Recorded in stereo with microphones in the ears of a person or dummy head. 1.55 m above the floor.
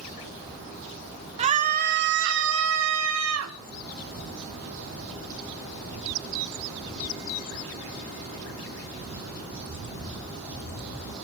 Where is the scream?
35° right (ahead or behind), 1.2 m; by 3.5 s 80° right, 1.6 m.